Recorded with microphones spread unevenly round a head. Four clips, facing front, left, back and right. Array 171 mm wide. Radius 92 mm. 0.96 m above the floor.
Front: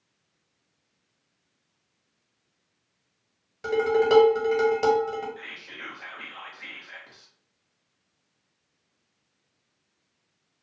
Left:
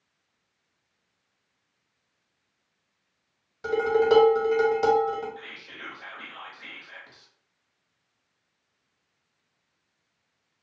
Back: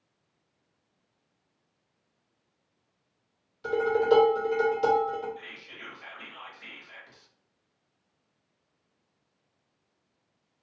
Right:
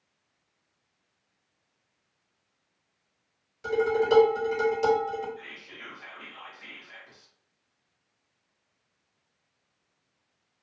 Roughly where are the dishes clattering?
Ahead left.